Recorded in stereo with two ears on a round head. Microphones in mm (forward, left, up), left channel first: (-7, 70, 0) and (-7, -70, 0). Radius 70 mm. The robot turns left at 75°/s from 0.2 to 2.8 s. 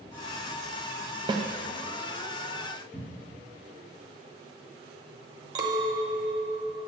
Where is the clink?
25° right (ahead or behind), 0.9 m.